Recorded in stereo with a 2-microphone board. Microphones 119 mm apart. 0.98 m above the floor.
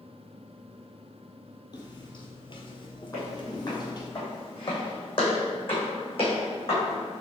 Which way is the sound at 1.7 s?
35° left (ahead or behind).